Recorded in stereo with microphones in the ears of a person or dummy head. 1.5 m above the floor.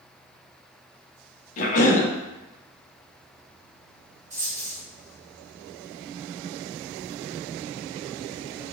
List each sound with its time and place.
1.6 s a cough: 50° left (ahead or behind), 0.6 m
4.3 s a dropped coin: 40° right (ahead or behind), 1.7 m